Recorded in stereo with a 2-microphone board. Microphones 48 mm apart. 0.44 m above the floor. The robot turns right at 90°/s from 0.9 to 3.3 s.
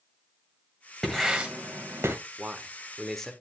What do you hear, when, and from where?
1.0 s writing: 10° left (ahead or behind), 1.8 m; by 2.1 s 70° right (ahead or behind), 1.8 m
2.4 s a man speaking: 60° right, 1.1 m; by 3.3 s 25° left, 1.1 m